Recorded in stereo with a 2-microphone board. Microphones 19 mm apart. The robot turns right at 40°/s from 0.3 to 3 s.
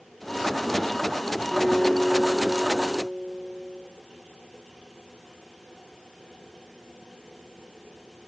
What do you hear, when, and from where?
1.5 s a guitar: 25° left, 8 m; by 3.8 s 85° left, 8 m